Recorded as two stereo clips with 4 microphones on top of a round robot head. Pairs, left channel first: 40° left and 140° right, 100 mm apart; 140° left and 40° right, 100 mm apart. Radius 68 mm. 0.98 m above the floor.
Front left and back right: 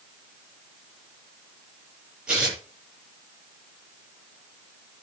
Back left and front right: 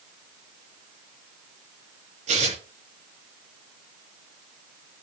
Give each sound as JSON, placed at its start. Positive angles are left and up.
{"t": 2.3, "sound": "tearing paper", "azimuth_deg": -55, "distance_m": 8.5}